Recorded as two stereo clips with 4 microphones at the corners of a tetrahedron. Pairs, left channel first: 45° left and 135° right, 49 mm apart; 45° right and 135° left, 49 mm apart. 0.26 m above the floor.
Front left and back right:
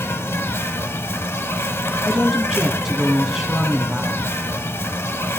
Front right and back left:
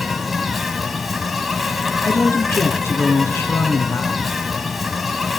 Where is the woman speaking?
55° right, 1.9 m.